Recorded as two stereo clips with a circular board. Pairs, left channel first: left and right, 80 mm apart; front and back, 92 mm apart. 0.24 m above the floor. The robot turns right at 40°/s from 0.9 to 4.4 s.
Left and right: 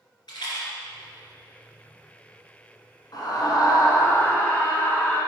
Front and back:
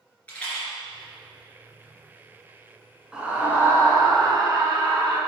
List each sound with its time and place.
0.3 s a rattle: 70° left, 2.5 m
3.1 s a scream: 100° left, 2.0 m; by 5.2 s 150° left, 2.0 m